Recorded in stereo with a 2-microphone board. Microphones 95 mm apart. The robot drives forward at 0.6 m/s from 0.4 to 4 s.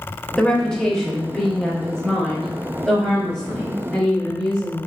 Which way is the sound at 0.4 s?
10° left (ahead or behind).